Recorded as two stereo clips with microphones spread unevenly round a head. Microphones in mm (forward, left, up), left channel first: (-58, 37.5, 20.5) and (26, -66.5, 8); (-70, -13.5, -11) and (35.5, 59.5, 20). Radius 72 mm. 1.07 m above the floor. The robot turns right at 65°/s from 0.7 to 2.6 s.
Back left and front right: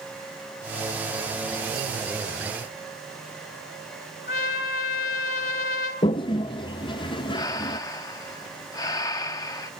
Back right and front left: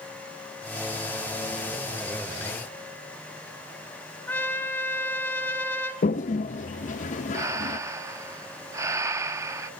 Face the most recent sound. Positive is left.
turn(degrees=75)